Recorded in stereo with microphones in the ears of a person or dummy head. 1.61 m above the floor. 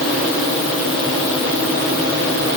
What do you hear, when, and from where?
Only background noise.